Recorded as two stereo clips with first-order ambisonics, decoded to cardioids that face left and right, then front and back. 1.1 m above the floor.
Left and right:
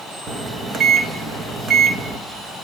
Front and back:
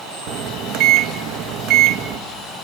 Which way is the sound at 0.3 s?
155° right.